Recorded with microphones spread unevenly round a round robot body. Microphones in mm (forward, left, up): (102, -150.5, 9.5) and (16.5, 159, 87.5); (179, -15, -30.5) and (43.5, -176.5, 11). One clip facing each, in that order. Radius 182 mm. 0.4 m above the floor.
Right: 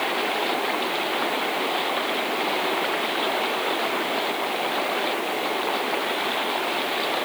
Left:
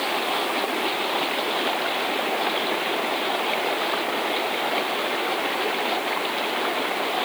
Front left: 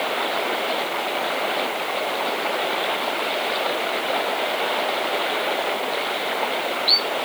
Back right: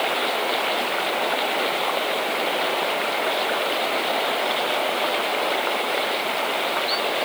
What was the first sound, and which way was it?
Only background noise.